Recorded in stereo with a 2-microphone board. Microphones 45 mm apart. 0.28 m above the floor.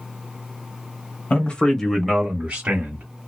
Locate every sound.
1.3 s a man speaking: 30° left (ahead or behind), 1.2 m; by 3.0 s 40° right (ahead or behind), 1.5 m